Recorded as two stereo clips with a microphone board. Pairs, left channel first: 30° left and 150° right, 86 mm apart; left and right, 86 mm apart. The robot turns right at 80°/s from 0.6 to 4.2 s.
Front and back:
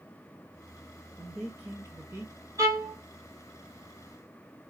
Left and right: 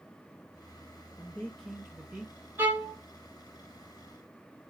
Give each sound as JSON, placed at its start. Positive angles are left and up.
{"t": 1.2, "sound": "a man speaking", "azimuth_deg": 125, "distance_m": 1.1}
{"t": 2.6, "sound": "a violin", "azimuth_deg": -145, "distance_m": 1.8}